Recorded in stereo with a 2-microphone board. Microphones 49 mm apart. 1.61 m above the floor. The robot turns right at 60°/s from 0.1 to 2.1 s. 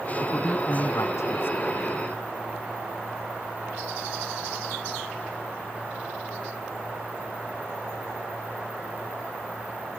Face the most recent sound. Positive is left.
turn(degrees=165)